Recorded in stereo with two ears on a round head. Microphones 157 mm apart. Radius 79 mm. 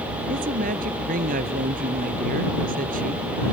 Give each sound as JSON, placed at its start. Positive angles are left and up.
{"t": 0.3, "sound": "a woman speaking", "side_deg": -50}